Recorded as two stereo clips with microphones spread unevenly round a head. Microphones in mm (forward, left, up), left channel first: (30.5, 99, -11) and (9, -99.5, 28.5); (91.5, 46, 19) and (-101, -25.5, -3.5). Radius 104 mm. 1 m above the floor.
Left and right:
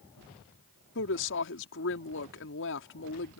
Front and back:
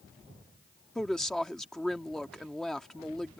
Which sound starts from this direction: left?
A woman speaking, at 0.9 s.